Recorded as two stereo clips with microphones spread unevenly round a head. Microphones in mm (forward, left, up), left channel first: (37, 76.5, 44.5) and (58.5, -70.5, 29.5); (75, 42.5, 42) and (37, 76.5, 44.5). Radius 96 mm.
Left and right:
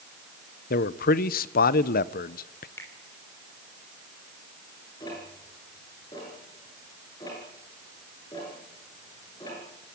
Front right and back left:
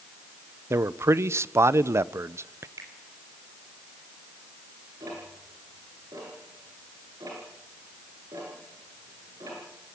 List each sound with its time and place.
0.7 s a man speaking: 115° left, 0.8 m
2.8 s a finger snap: 175° left, 3 m
5.0 s ticking: 170° left, 7 m